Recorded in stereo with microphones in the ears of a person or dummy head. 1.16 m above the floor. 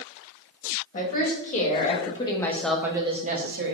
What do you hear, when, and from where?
0.9 s a woman speaking: 45° left (ahead or behind), 1.5 m; by 3.8 s 60° right (ahead or behind), 0.7 m